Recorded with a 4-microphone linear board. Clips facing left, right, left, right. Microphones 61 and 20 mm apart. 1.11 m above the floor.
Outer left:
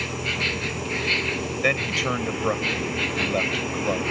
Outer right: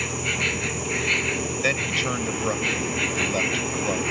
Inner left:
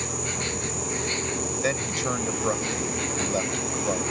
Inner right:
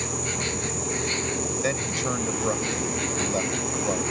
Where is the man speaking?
10° left (ahead or behind).